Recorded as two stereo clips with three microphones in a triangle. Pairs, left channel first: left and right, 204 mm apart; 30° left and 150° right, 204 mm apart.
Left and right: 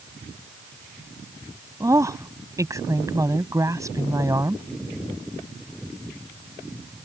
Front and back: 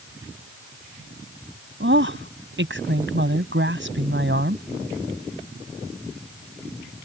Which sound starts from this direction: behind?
A woman speaking, at 1.8 s.